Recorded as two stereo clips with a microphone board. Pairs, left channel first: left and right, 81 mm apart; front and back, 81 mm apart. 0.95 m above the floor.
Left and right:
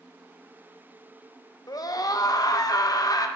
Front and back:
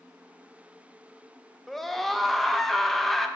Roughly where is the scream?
Left.